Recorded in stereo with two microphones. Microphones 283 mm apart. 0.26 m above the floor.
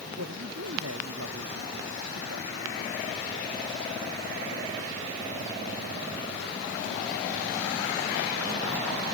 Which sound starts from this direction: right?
A man speaking, at 0.2 s.